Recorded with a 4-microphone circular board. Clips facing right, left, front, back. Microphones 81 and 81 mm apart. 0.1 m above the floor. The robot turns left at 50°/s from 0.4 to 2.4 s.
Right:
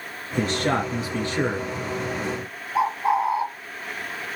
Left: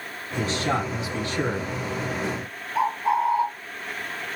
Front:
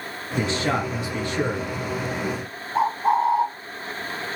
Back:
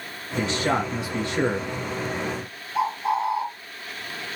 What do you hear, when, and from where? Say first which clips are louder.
0.4 s a man speaking: right 2 dB, even; 90° right, 1.9 m; by 1.7 s 155° right, 1.9 m
2.8 s a bird: right 1 dB, front 4 dB; 25° right, 1.1 m